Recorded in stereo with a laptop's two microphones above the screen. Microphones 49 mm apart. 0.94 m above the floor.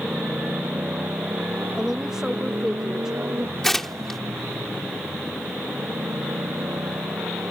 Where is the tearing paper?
5° left (ahead or behind).